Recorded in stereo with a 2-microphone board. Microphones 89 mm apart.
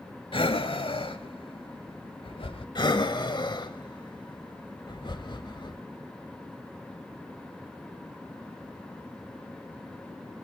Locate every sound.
0.3 s breathing: 80° left, 0.8 m
2.8 s breathing: 55° left (ahead or behind), 0.9 m